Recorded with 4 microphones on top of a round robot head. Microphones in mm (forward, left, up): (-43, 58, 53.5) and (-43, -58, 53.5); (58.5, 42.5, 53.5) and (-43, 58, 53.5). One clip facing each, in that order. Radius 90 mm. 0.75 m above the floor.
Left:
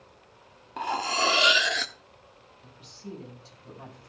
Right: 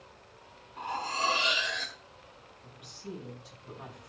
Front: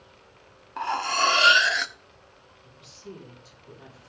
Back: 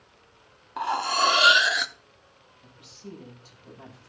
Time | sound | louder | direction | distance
0.8 | cutlery clinking | left 5 dB, back 1 dB | 95° left | 0.7 m
2.6 | a woman speaking | left 1 dB, front 1 dB | 145° left | 6.5 m